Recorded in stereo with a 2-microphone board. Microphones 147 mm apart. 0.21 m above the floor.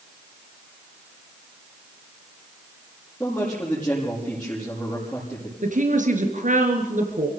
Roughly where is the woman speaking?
Right.